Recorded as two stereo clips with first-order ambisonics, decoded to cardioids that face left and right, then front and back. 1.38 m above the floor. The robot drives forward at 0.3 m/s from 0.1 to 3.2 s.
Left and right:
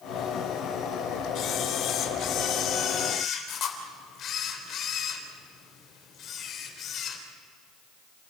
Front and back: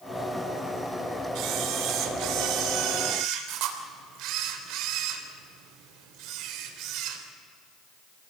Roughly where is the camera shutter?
Behind left.